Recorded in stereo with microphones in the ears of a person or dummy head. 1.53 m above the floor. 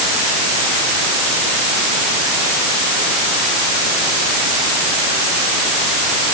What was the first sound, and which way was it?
Only background noise.